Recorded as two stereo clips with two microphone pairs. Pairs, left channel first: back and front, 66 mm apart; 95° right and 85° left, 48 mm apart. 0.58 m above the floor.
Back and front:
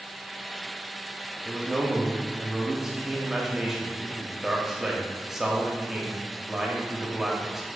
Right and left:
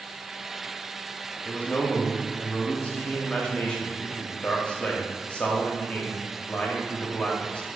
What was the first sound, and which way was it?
A man speaking, 75° right.